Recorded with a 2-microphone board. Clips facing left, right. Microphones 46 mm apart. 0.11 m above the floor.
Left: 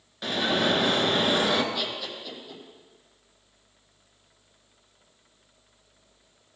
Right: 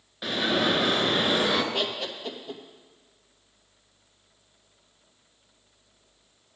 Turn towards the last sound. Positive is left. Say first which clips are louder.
# right 3 dB
turn(degrees=-60)  # may be behind; listen again after turning